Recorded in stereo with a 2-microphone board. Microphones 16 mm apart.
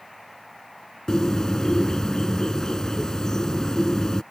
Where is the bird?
45° left (ahead or behind).